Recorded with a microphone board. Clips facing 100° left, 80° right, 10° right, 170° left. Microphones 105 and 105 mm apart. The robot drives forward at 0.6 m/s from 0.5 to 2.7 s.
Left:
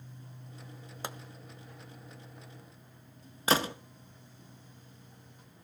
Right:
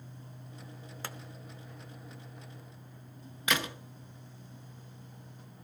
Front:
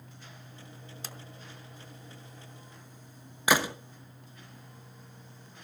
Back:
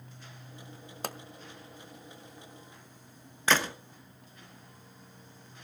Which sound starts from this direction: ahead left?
A gunshot, at 3.5 s.